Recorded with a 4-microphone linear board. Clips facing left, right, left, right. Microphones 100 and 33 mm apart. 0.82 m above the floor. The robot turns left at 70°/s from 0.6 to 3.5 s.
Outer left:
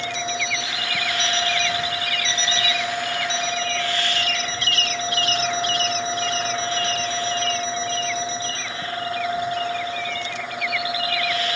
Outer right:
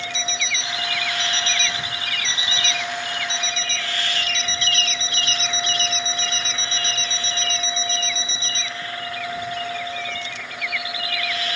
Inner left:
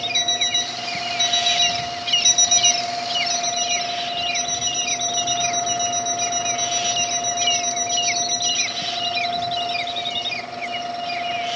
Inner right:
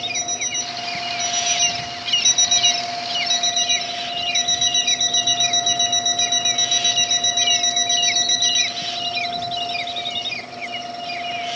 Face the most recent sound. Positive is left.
turn(degrees=-85)